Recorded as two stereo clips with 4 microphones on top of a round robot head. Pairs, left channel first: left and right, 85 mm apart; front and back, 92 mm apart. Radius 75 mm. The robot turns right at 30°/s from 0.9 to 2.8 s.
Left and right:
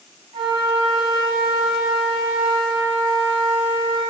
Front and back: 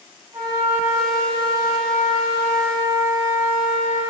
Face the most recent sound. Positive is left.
turn(degrees=-55)